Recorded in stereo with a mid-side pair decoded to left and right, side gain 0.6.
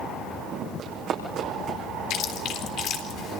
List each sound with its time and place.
0.8 s running footsteps: 60° right, 5 m; by 1.8 s 65° right, 5.5 m
2.1 s chewing: 65° left, 3.5 m